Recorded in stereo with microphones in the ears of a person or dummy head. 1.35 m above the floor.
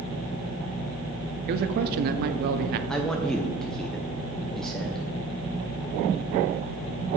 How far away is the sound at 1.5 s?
About 0.5 m.